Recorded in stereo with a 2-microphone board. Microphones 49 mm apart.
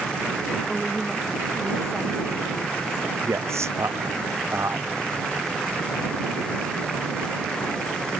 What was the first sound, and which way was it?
A woman speaking, 5° right (ahead or behind).